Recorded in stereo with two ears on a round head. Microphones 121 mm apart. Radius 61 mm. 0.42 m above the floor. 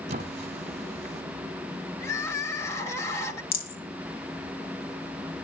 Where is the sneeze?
No sneeze in this recording.